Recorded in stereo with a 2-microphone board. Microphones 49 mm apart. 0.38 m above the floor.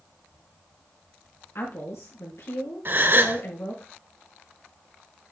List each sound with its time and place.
1.6 s a woman speaking: 70° left (ahead or behind), 4 m
2.9 s a gasp: 45° right (ahead or behind), 0.8 m